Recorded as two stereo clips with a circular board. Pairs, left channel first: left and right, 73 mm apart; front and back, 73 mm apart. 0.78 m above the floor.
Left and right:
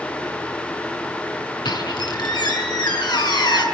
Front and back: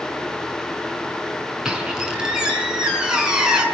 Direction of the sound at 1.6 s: 100° left.